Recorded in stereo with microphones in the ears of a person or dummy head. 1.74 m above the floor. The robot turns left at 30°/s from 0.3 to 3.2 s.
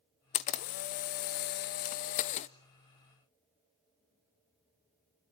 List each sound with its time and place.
0.3 s a camera shutter: 120° left, 0.7 m; by 2.5 s 55° left, 0.7 m